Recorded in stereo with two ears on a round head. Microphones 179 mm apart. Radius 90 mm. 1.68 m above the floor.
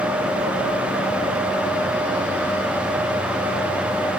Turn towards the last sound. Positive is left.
No sound to turn to.